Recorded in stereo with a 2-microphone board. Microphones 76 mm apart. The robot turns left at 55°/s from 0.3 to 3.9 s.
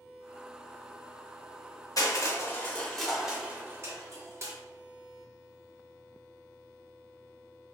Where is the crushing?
55° left (ahead or behind), 0.6 m; by 4.5 s 40° right (ahead or behind), 0.6 m.